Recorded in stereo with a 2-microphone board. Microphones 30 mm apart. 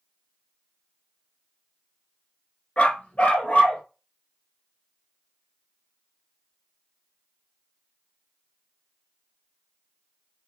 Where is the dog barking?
45° left (ahead or behind), 0.8 m; by 3.8 s 55° left (ahead or behind), 1.8 m.